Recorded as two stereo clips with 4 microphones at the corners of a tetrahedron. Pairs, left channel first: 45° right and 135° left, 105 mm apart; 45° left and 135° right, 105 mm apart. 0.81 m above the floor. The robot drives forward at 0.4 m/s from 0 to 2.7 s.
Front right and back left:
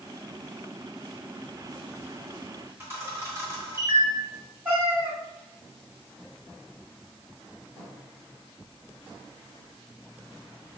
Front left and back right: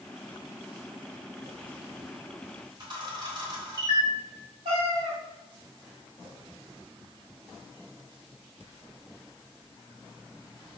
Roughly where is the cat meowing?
Behind right.